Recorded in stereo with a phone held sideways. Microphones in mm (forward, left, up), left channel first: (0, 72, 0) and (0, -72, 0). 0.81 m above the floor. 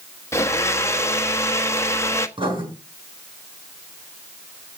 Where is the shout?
I don't hear a shout.